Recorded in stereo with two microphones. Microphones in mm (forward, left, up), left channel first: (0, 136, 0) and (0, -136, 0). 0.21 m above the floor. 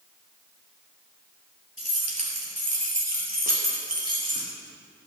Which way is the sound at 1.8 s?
55° right (ahead or behind).